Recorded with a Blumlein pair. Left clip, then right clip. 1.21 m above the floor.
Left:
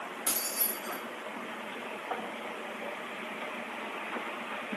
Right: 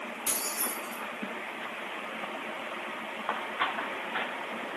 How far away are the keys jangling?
About 1.1 m.